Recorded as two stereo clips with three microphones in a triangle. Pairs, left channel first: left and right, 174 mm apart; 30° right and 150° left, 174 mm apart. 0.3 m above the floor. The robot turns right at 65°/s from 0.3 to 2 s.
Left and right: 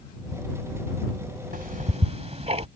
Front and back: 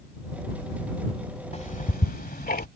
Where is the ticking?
75° right; by 2.7 s 45° right.